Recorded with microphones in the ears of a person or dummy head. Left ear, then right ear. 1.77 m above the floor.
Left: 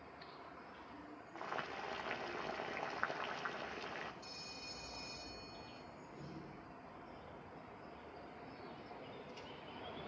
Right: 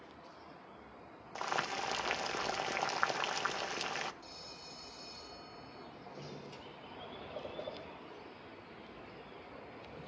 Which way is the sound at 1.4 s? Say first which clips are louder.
Right 8 dB; 90° right.